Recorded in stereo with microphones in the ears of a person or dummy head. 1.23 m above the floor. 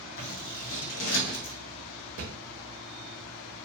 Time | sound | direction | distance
0.2 | scissors | 70° left (ahead or behind) | 0.7 m
2.2 | a thud | 35° right (ahead or behind) | 0.7 m